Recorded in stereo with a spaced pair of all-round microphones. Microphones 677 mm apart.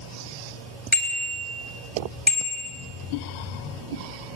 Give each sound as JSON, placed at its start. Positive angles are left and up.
{"t": 0.9, "sound": "a bicycle bell", "side_deg": 0, "distance_m": 4.5}